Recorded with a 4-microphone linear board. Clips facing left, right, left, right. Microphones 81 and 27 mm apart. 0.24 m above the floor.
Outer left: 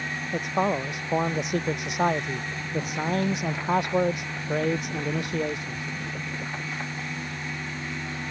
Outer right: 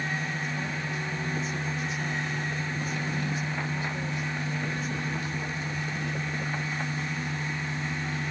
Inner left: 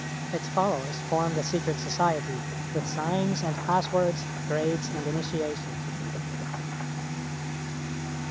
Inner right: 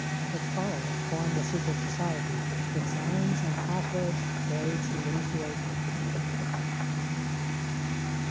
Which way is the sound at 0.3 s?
70° left (ahead or behind).